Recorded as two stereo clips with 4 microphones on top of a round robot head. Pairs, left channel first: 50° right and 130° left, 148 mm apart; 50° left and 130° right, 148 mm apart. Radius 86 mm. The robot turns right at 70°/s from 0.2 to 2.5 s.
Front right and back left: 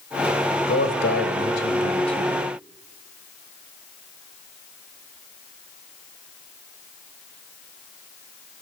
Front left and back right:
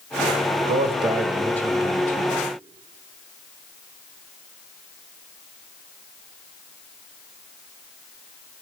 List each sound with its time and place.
0.7 s a man speaking: 95° right, 1.2 m; by 2.4 s 25° left, 1.2 m